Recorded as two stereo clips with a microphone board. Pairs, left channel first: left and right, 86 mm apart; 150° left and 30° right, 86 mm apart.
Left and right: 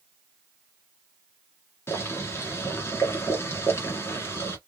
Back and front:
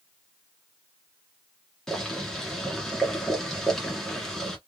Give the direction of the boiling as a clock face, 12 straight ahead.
10 o'clock.